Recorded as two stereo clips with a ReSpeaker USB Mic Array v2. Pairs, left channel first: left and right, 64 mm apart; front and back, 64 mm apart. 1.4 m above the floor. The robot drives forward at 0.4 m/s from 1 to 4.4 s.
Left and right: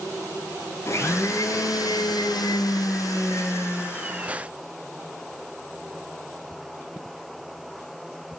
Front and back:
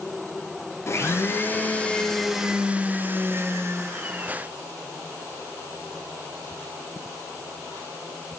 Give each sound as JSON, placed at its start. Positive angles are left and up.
{"t": 0.9, "sound": "a blender", "azimuth_deg": 45, "distance_m": 0.7}